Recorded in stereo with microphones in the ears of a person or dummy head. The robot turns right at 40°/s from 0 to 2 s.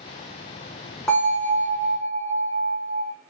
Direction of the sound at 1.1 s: 165° left.